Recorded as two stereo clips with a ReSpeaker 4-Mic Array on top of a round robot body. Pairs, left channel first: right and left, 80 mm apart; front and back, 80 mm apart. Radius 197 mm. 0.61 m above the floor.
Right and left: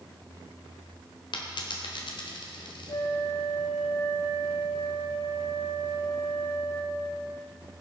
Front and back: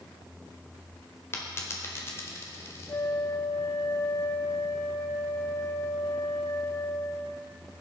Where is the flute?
55° right, 0.9 m.